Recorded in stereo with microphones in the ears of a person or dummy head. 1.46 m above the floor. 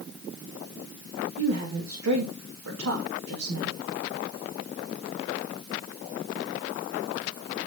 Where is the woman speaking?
90° right, 3 m.